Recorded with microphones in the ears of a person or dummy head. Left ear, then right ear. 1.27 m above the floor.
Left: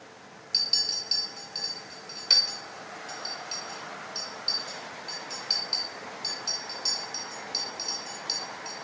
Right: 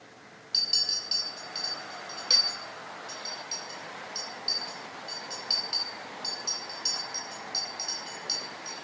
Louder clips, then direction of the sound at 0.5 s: Even; 5° right (ahead or behind).